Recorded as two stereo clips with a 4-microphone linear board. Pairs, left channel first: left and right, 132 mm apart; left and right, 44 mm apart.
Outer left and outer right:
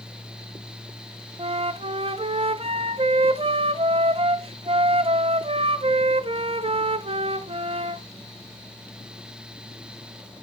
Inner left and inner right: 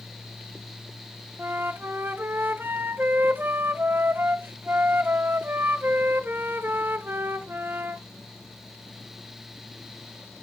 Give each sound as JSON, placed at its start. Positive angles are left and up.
{"t": 1.4, "sound": "a flute", "side_deg": -45, "distance_m": 0.5}